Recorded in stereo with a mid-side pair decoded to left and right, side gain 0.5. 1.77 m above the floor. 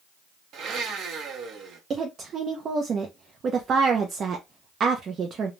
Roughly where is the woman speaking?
Ahead right.